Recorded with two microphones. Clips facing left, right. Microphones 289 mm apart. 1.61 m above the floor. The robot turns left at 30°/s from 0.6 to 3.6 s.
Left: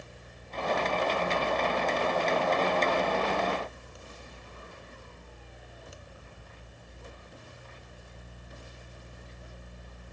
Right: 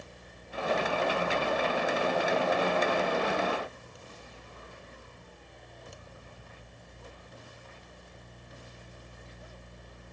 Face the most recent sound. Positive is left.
No sound to turn to.